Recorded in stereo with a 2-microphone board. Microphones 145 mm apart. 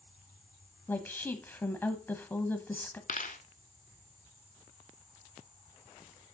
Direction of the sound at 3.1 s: 65° left (ahead or behind).